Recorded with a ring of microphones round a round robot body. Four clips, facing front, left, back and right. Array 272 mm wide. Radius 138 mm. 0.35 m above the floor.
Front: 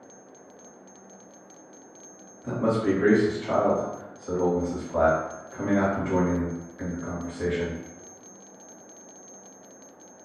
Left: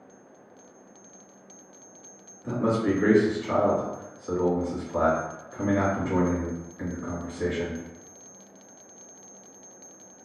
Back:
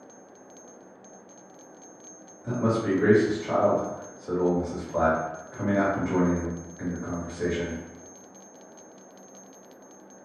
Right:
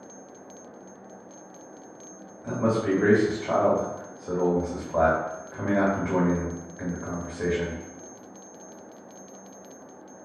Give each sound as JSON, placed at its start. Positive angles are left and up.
{"t": 2.4, "sound": "a man speaking", "azimuth_deg": -80, "distance_m": 1.3}